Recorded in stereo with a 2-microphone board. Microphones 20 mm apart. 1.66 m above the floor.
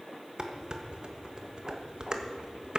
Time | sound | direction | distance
0.4 | dishes clattering | 45° right (ahead or behind) | 1.3 m